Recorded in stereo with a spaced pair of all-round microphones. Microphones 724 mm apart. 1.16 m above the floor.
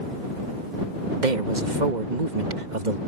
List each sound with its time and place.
1.2 s a man speaking: 80° right